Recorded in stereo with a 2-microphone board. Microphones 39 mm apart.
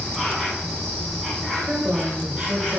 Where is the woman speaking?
40° right (ahead or behind), 2 m.